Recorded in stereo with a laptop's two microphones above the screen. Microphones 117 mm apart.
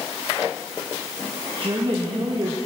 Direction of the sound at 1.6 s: 45° right (ahead or behind).